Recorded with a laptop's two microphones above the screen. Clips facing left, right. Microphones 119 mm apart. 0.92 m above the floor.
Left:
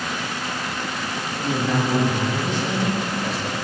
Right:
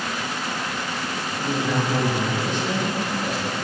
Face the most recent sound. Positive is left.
turn(degrees=35)  # may be behind; listen again after turning